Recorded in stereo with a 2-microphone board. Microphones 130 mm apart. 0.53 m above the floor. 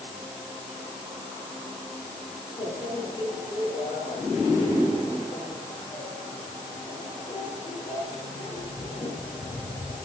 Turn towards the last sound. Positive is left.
turn(degrees=35)  # may be behind; listen again after turning